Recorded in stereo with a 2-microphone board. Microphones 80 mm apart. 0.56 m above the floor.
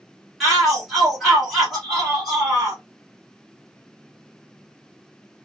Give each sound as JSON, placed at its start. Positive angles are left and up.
{"t": 0.4, "sound": "a shout", "side_deg": -5, "distance_m": 1.2}